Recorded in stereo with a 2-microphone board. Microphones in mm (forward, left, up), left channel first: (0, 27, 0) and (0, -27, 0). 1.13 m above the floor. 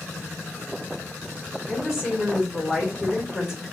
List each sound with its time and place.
1.7 s a woman speaking: 5° right (ahead or behind), 4 m